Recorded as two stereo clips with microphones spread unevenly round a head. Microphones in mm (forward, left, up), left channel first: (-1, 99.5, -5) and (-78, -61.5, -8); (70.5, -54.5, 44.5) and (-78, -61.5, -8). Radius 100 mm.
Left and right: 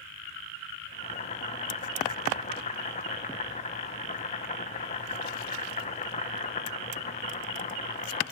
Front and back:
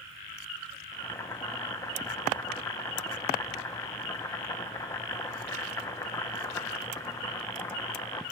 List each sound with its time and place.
0.9 s boiling: 35° left, 0.7 m